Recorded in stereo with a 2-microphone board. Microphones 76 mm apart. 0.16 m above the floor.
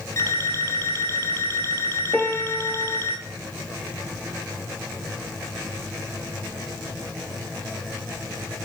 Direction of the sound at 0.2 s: 35° left (ahead or behind).